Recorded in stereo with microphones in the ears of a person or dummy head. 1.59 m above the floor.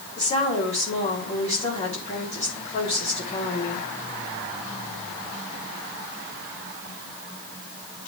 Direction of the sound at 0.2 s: 30° left (ahead or behind).